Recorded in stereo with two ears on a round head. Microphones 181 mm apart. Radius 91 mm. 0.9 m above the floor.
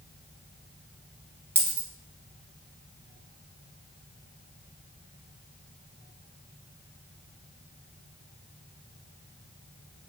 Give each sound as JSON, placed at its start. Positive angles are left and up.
{"t": 1.6, "sound": "a dropped coin", "side_deg": -10, "distance_m": 0.8}